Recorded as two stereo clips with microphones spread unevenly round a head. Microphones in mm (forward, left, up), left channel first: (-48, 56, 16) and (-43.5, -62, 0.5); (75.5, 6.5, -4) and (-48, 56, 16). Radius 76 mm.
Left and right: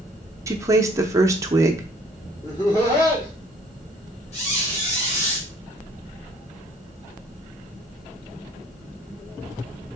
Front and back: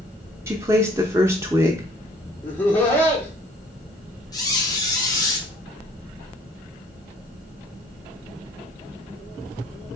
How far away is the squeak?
About 1.7 m.